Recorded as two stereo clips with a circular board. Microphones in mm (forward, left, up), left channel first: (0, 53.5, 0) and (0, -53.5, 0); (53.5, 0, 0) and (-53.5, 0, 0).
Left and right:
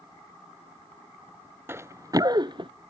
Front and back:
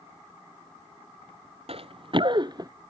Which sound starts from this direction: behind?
Running footsteps, at 1.7 s.